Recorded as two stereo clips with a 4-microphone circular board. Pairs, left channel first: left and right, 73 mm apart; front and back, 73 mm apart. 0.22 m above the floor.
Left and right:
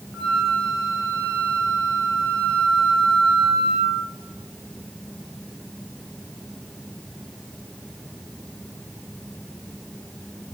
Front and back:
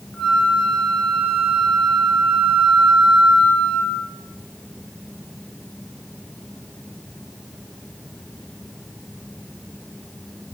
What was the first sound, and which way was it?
A flute, 60° left.